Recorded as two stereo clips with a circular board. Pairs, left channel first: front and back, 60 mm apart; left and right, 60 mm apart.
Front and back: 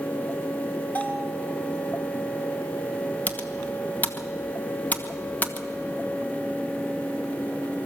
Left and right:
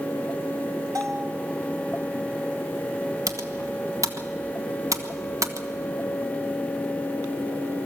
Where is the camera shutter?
No camera shutter in this recording.